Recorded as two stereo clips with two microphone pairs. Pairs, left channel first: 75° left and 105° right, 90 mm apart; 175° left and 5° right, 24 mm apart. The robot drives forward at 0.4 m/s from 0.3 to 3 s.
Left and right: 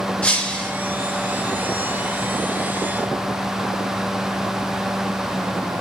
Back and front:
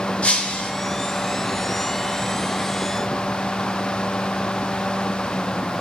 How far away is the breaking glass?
About 3.5 m.